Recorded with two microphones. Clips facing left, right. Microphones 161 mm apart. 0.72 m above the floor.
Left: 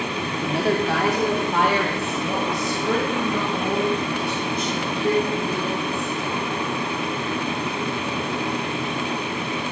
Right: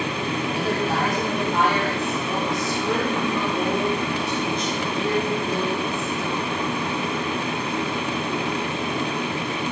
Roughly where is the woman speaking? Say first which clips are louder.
Left 5 dB; left.